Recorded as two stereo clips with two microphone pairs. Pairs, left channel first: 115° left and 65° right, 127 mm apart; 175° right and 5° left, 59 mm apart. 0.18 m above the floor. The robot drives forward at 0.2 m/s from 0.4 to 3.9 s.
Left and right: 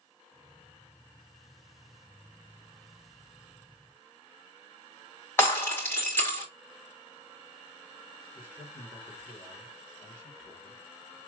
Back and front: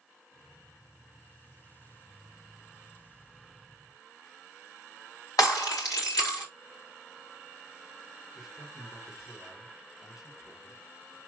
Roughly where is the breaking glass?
Behind.